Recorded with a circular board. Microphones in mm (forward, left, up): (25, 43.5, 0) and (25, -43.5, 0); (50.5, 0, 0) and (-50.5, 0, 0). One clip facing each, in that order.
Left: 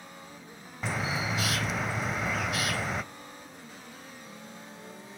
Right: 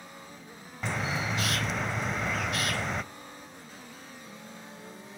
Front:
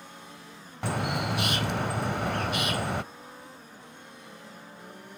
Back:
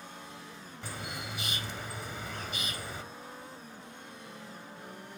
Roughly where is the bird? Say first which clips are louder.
Even, front 12 dB; ahead.